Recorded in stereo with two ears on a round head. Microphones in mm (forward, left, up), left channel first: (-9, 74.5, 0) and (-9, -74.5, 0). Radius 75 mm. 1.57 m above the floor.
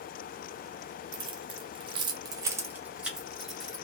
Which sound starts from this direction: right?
Keys jangling, at 1.1 s.